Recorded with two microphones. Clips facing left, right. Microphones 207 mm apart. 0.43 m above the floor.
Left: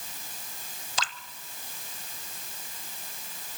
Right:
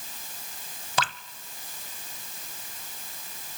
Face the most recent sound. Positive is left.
turn(degrees=-60)  # may be behind; listen again after turning